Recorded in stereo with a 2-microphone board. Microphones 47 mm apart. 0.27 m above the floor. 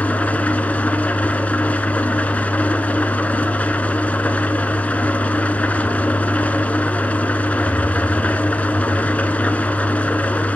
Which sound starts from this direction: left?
An engine running, at 0.0 s.